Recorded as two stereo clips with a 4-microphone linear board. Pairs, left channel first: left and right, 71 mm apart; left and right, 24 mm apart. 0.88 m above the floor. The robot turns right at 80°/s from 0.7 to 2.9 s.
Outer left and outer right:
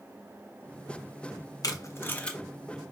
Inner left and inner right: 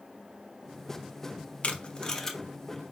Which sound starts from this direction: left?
Tape being pulled, at 1.6 s.